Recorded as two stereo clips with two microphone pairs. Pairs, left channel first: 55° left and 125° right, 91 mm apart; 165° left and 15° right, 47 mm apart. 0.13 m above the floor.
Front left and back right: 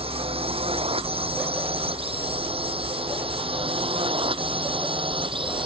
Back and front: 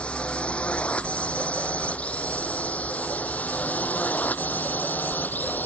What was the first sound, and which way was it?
A drone, 130° right.